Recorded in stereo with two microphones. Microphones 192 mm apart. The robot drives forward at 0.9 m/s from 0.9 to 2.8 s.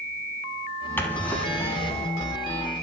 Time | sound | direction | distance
1.0 | a drawer | 10° left (ahead or behind) | 0.6 m